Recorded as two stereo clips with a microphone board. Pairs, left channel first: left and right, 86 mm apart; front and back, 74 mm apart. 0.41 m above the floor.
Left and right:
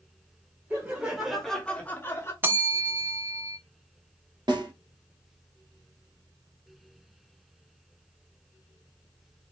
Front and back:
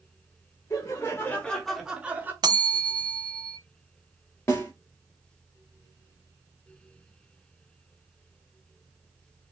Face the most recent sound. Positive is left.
turn(degrees=-55)